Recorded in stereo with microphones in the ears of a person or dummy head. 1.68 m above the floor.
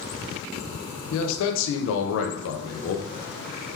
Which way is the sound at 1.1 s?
70° left (ahead or behind).